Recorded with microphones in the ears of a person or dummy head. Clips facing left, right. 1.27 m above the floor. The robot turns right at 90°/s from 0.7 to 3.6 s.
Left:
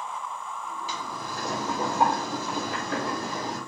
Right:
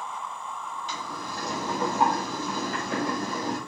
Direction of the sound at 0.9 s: 5° left.